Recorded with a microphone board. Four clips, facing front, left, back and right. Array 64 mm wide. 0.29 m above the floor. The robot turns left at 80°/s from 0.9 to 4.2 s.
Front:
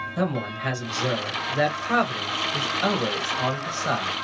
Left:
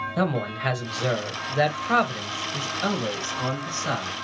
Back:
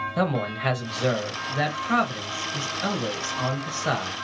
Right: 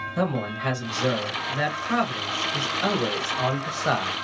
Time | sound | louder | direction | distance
0.2 | a man speaking | even, back 1 dB | 150° left | 0.9 m